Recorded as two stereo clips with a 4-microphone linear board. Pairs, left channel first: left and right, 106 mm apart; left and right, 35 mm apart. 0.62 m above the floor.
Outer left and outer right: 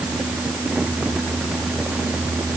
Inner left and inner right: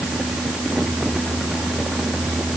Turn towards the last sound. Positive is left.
No sound to turn to.